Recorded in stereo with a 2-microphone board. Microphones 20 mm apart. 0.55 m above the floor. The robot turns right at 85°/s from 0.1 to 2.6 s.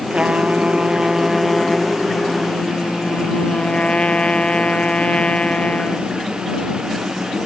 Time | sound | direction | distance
0.1 | a trumpet | 120° right | ?